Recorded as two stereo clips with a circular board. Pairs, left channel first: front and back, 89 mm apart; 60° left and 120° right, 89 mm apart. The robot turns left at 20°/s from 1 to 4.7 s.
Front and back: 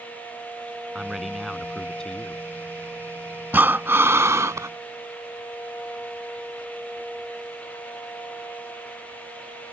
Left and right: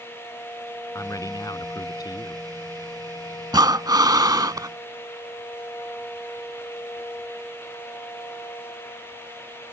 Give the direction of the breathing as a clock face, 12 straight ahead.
4 o'clock.